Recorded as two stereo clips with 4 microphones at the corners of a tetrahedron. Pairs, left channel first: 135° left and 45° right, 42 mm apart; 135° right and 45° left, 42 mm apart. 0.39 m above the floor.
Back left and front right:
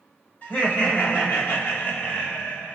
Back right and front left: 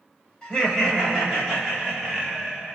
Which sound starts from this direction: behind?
Laughter, at 0.4 s.